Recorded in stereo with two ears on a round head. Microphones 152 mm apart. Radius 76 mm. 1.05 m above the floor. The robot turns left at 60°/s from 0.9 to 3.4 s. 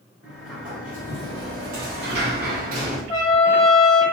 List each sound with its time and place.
0.2 s a sliding door: 10° right, 1.5 m; by 3.0 s 135° right, 1.5 m
3.1 s a trumpet: 25° left (ahead or behind), 0.8 m; by 4.0 s 30° left (ahead or behind), 0.8 m